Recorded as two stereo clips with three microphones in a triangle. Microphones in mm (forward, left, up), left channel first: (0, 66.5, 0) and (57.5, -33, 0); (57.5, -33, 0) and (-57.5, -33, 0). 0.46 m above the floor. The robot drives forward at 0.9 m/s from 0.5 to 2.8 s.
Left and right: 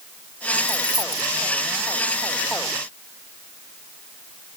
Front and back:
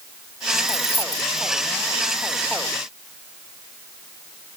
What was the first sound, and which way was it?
Keys jangling, 5° right.